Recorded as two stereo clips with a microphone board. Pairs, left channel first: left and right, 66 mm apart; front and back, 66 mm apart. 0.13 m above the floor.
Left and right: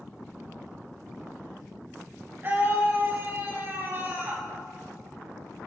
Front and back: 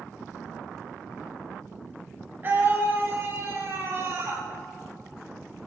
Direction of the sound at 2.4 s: 135° right.